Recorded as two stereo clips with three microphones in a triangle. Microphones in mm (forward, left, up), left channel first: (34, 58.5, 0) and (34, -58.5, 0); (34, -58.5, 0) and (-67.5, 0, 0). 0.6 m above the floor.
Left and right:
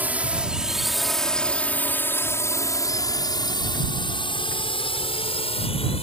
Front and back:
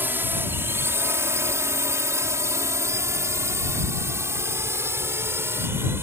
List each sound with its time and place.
0.0 s a drone: 155° right; by 6.0 s 85° left